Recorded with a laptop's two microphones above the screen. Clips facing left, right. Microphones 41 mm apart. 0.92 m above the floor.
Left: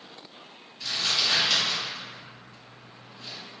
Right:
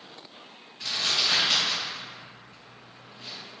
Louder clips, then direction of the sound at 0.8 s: Even; 65° right (ahead or behind).